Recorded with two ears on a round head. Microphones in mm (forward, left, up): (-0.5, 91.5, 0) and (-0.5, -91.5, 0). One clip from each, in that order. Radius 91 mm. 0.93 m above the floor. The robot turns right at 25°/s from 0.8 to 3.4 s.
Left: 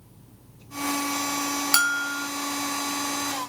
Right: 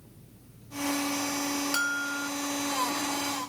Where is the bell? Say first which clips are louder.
Left 8 dB; 40° left (ahead or behind), 1.0 m; by 2.3 s 25° left (ahead or behind), 1.0 m.